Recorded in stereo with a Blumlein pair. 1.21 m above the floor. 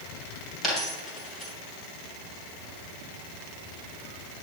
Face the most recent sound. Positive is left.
turn(degrees=10)